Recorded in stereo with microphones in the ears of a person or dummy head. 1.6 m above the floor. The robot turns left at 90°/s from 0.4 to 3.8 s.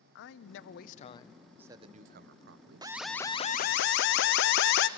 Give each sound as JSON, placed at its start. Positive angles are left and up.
{"t": 0.1, "sound": "a man speaking", "azimuth_deg": 90, "distance_m": 0.9}
{"t": 2.8, "sound": "an alarm", "azimuth_deg": -165, "distance_m": 0.7}